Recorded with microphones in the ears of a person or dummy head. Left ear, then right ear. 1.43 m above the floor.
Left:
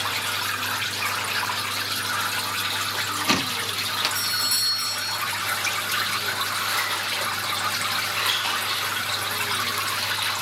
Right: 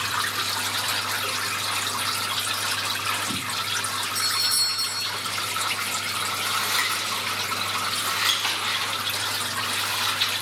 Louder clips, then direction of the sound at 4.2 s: Right 1 dB; 10° left (ahead or behind).